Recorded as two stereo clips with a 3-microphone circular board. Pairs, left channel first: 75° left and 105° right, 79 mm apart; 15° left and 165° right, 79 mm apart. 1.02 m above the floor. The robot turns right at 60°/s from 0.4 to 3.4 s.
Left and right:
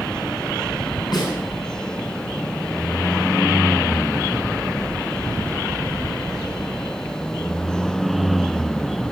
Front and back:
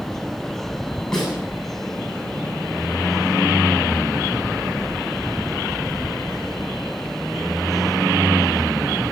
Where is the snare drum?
95° left, 7.5 m; by 1.3 s 110° left, 7.5 m.